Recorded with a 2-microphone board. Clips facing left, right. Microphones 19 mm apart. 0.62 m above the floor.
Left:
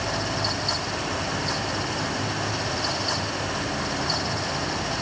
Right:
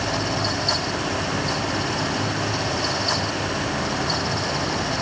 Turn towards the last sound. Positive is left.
No sound to turn to.